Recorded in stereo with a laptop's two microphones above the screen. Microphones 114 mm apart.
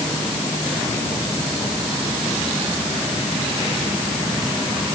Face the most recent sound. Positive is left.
No sound to turn to.